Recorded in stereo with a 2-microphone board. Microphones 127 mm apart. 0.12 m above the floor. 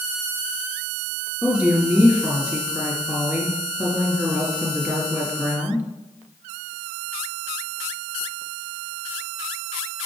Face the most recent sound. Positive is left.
turn(degrees=-10)  # may be behind; listen again after turning